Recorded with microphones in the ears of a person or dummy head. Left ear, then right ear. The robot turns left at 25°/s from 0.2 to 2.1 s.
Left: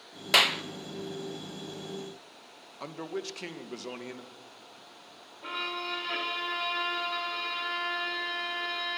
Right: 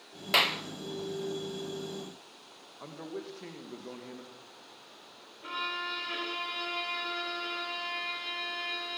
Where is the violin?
25° left (ahead or behind), 4.5 m.